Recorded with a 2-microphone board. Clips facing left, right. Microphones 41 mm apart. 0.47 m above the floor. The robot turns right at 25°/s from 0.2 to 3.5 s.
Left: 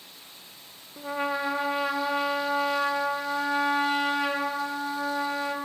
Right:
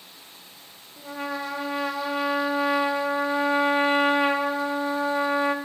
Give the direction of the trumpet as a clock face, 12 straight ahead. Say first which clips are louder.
Left 3 dB; 7 o'clock.